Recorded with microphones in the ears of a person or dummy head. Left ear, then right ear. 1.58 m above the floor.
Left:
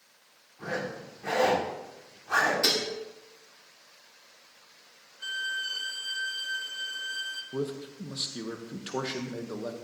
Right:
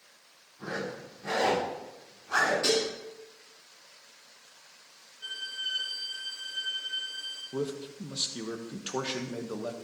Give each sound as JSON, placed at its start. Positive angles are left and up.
{"t": 0.6, "sound": "a zipper", "side_deg": 35, "distance_m": 4.5}
{"t": 2.6, "sound": "dishes clattering", "side_deg": 25, "distance_m": 1.9}
{"t": 5.2, "sound": "a violin", "side_deg": 40, "distance_m": 1.2}
{"t": 7.5, "sound": "a man speaking", "side_deg": 0, "distance_m": 1.1}